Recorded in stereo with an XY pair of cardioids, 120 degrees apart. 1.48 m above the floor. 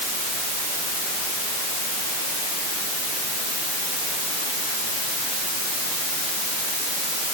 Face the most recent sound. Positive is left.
No sound to turn to.